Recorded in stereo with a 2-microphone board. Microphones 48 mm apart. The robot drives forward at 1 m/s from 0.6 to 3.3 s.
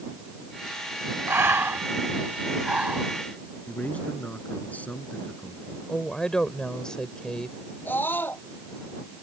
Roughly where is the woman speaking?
Centre.